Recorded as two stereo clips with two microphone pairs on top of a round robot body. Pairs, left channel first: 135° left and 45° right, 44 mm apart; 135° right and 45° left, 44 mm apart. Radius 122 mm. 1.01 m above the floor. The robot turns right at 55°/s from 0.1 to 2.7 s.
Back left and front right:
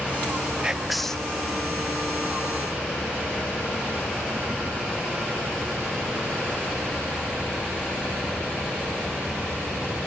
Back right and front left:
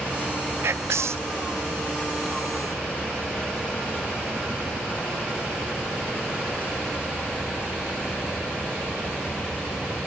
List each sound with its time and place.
0.6 s whispering: 25° left, 0.5 m; by 1.3 s 65° left, 0.5 m